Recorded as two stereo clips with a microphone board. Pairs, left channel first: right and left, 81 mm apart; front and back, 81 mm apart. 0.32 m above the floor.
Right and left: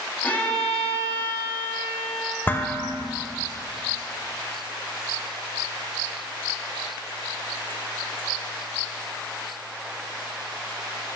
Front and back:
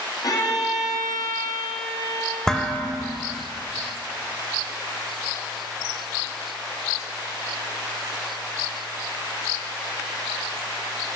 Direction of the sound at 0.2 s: 20° right.